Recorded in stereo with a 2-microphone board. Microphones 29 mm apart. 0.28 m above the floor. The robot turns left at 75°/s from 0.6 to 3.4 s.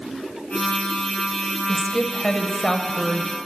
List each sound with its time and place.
1.7 s a woman speaking: 5° left (ahead or behind), 0.9 m; by 3.4 s 15° left (ahead or behind), 0.9 m